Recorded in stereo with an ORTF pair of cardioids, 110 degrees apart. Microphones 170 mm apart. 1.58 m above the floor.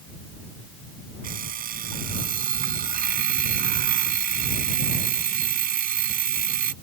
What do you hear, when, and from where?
1.2 s an alarm clock: 60° right